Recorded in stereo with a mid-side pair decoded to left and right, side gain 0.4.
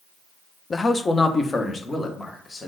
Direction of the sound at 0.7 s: 35° left.